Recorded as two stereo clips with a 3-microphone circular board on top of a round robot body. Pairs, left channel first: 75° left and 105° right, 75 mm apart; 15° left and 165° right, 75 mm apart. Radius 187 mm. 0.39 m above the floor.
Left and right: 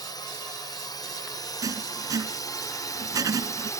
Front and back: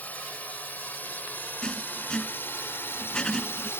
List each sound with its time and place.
0.0 s a drone: 80° left; by 3.8 s 60° left
1.6 s writing: 65° right